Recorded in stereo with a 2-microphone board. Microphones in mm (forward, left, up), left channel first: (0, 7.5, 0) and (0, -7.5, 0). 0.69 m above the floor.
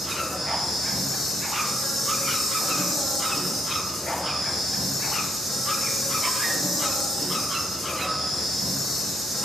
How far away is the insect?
About 2.5 m.